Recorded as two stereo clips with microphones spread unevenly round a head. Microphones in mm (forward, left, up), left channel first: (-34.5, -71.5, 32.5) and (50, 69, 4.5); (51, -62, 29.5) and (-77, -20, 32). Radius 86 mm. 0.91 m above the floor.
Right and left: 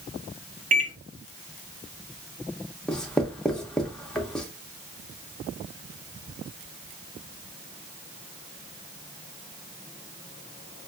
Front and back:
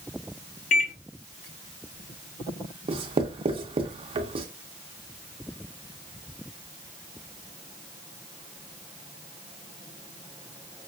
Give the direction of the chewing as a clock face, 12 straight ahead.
I don't hear chewing.